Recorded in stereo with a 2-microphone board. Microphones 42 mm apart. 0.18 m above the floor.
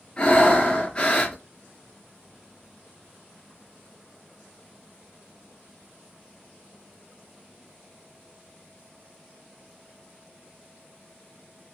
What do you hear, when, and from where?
0.2 s breathing: 30° left (ahead or behind), 2 m